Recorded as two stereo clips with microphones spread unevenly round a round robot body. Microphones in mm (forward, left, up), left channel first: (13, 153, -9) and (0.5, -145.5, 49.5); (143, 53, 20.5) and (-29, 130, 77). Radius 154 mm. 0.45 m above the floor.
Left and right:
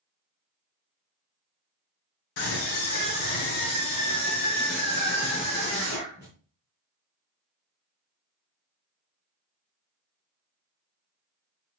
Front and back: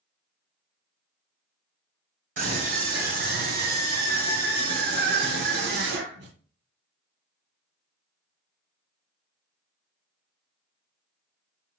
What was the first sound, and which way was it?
A scream, 135° left.